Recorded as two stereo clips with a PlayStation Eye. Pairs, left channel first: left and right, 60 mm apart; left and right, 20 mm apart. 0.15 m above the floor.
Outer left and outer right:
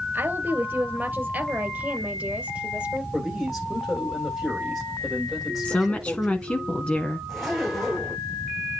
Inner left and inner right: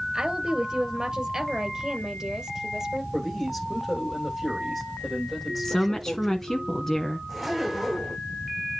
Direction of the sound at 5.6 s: 20° left (ahead or behind).